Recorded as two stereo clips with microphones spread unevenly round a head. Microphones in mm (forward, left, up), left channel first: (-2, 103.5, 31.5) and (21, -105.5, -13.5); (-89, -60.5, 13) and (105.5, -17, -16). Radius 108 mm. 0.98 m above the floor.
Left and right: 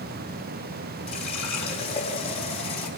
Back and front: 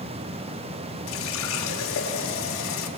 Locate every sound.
1.1 s a running tap: 160° left, 4.5 m